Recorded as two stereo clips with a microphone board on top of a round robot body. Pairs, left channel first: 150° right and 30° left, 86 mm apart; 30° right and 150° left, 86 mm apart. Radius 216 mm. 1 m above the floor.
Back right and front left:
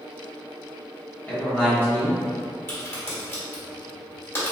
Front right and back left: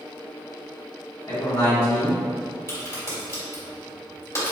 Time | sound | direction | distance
1.3 | a man speaking | 80° right | 1.4 m
2.7 | a crack | 85° right | 1.9 m